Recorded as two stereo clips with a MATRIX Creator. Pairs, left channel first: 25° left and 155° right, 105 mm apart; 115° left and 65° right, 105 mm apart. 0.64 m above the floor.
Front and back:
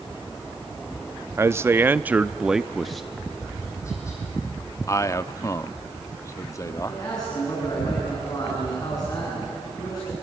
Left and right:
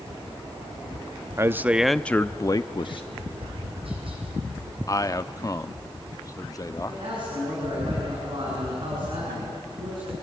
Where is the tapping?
40° right, 6.5 m.